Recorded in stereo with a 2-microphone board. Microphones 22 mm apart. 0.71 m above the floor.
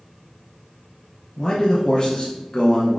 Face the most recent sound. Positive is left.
turn(degrees=35)  # may be behind; listen again after turning